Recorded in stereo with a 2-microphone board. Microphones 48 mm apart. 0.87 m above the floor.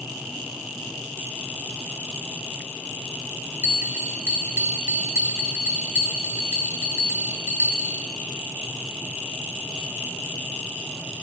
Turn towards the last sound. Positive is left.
turn(degrees=-65)  # may be behind; listen again after turning